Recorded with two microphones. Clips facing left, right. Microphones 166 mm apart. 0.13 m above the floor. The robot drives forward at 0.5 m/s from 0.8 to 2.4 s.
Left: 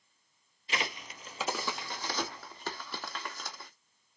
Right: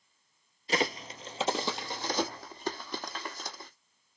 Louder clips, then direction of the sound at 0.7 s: Right 7 dB; 40° right (ahead or behind).